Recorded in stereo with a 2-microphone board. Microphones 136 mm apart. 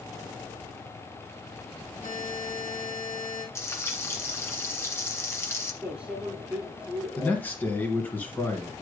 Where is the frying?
20° left (ahead or behind), 1.4 m.